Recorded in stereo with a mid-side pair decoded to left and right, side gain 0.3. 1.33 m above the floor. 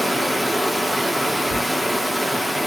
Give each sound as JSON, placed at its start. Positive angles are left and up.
{"t": 0.0, "sound": "running water", "azimuth_deg": -5, "distance_m": 1.2}
{"t": 1.4, "sound": "a cupboard door", "azimuth_deg": 5, "distance_m": 2.5}